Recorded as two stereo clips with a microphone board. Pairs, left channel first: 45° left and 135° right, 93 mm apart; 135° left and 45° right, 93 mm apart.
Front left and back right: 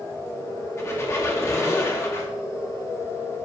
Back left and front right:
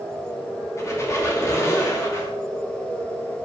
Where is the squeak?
90° left, 0.7 m.